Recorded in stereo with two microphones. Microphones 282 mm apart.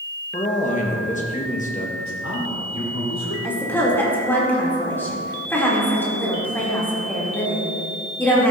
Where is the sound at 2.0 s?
75° left (ahead or behind), 3 m.